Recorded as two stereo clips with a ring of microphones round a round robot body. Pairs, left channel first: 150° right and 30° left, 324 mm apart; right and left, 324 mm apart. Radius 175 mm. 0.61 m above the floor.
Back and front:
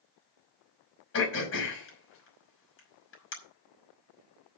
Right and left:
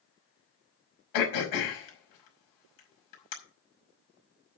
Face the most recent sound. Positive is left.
turn(degrees=-100)